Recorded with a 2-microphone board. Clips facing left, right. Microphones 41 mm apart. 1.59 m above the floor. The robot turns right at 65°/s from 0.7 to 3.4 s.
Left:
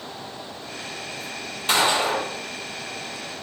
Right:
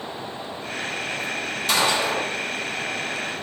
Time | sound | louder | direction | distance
1.7 | a gunshot | left 1 dB | 45° left | 1.2 m